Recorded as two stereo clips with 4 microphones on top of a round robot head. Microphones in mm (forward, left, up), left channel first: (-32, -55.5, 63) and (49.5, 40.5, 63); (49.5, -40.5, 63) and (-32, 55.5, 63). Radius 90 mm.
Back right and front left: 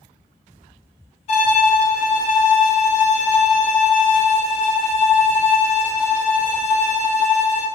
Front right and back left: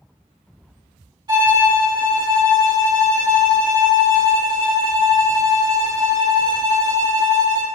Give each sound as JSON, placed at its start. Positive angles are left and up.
{"t": 1.3, "sound": "a violin", "azimuth_deg": -170, "distance_m": 1.3}